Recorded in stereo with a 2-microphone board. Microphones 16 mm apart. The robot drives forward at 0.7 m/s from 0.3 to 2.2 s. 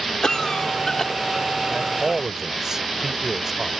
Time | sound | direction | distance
0.2 | a cough | 45° left (ahead or behind) | ?
1.7 | a man speaking | 25° right (ahead or behind) | ?